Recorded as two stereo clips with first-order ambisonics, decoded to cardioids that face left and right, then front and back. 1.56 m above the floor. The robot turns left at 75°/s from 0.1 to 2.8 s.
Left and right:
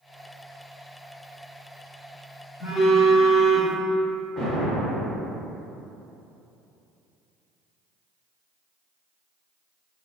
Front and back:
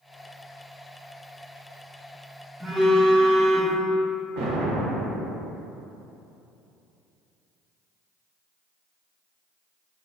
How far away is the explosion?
About 1.1 m.